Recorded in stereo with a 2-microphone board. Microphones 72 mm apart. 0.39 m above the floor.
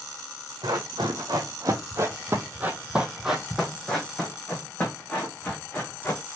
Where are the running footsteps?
75° right (ahead or behind), 1.2 m; by 6.2 s 25° left (ahead or behind), 2 m.